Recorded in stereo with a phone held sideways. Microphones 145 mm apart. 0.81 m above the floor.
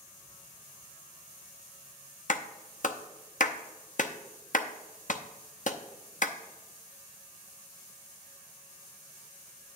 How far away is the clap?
About 0.6 m.